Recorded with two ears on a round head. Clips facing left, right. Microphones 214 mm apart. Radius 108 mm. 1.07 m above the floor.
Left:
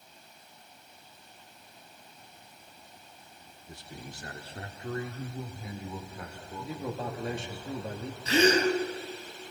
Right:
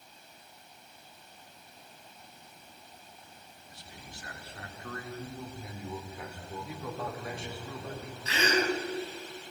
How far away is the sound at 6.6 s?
About 2.5 m.